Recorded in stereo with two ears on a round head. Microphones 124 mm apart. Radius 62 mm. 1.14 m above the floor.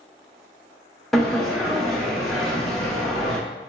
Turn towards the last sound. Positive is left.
turn(degrees=5)  # may be behind; listen again after turning